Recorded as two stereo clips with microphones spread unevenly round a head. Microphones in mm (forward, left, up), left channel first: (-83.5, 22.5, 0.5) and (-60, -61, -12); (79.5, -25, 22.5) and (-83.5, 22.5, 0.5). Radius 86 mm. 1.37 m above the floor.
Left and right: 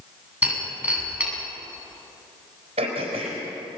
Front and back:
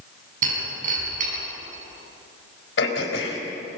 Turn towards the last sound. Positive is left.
turn(degrees=-40)